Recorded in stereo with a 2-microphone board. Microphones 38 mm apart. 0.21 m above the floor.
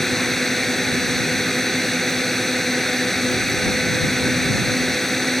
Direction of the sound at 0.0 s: 10° left (ahead or behind).